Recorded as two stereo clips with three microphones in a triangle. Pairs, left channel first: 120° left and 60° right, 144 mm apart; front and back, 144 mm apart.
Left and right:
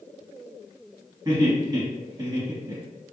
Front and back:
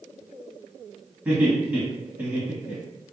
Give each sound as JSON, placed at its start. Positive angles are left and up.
{"t": 1.2, "sound": "laughter", "azimuth_deg": -110, "distance_m": 1.6}